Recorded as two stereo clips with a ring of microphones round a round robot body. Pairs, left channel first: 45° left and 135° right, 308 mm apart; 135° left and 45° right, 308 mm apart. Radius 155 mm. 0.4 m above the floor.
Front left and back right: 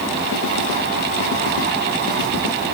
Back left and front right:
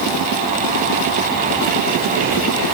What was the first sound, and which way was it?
Only background noise.